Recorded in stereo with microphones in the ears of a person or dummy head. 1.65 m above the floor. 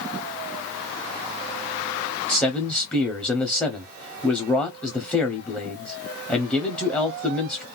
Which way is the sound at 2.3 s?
10° left (ahead or behind).